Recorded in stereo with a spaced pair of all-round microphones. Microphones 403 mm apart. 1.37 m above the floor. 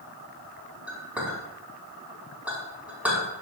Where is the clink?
5° right (ahead or behind), 6 m.